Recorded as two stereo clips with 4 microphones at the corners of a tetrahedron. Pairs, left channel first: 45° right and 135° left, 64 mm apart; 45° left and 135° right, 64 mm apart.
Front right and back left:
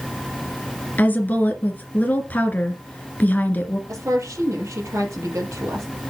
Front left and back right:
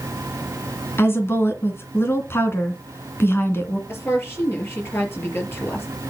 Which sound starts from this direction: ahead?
A woman speaking, at 1.0 s.